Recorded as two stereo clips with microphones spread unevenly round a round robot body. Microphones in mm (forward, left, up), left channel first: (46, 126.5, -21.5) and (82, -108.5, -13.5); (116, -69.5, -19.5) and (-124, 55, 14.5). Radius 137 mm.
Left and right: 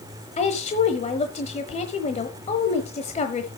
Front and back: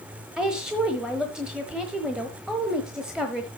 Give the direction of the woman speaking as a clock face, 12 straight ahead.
10 o'clock.